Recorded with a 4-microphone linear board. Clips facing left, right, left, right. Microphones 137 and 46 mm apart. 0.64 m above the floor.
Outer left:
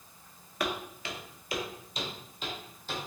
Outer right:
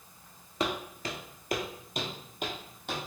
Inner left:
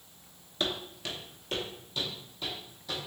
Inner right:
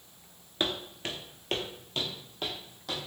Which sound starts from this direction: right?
Footsteps, at 0.6 s.